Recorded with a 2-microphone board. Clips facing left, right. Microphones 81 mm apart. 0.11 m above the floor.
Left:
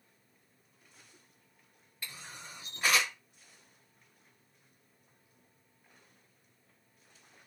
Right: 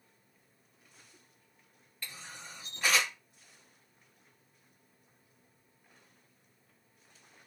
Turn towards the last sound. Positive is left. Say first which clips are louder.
# even
turn(degrees=15)  # may be behind; listen again after turning